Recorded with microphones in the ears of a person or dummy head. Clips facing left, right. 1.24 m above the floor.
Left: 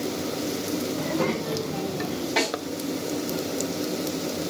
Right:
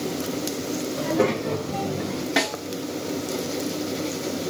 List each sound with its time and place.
1.0 s a child speaking: 40° right (ahead or behind), 3.5 m; by 2.3 s 55° right (ahead or behind), 3 m
2.4 s a snare drum: 20° right (ahead or behind), 3.5 m